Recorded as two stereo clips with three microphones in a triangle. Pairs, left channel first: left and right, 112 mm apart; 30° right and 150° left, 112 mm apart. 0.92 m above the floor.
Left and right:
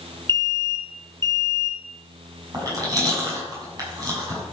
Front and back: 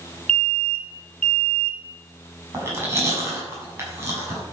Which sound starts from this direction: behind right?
Chewing, at 2.5 s.